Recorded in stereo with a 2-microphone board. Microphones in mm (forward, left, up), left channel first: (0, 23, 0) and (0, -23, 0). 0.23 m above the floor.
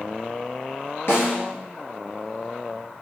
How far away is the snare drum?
About 1.7 m.